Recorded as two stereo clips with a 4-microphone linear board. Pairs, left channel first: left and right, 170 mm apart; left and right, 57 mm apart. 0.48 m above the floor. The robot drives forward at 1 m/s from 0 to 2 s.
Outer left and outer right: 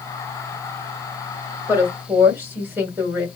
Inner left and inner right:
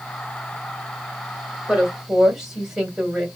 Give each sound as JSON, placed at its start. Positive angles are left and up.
{"t": 1.7, "sound": "a woman speaking", "side_deg": -15, "distance_m": 2.0}